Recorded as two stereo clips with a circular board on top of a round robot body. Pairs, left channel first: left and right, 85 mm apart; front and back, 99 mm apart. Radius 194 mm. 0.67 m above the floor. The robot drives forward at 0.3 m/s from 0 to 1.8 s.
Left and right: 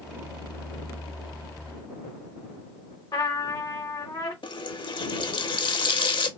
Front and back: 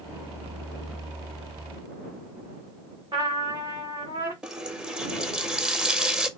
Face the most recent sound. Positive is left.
turn(degrees=95)